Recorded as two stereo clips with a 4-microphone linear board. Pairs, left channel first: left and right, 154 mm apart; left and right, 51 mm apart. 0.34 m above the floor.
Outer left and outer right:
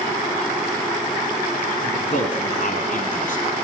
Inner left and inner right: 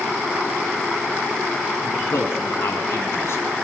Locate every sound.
1.8 s a man speaking: 55° left (ahead or behind), 3.5 m